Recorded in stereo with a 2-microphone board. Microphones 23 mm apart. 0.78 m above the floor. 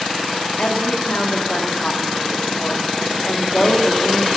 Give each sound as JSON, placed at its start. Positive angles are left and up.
{"t": 0.6, "sound": "a woman speaking", "side_deg": 60, "distance_m": 1.8}